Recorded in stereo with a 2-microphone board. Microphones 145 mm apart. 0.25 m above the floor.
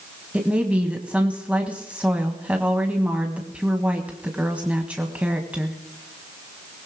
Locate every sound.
0.3 s a woman speaking: 10° right (ahead or behind), 1.4 m